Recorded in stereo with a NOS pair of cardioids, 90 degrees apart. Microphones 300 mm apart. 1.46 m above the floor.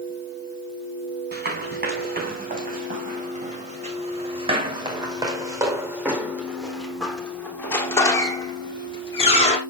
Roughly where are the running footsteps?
Ahead right.